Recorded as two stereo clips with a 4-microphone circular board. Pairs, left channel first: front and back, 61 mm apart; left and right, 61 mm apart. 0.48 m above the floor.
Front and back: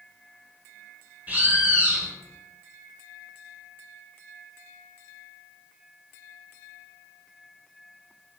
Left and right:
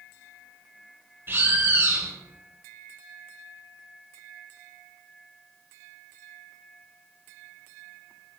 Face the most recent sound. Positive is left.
turn(degrees=-130)